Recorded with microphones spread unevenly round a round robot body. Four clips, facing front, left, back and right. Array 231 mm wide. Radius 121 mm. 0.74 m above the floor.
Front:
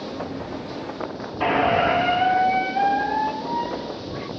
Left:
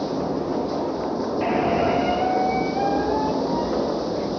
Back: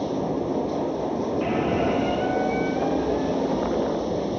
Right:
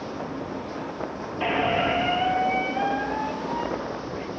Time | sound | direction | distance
0.0 | running water | 130° left | ?
1.4 | a squeak | 5° left | ?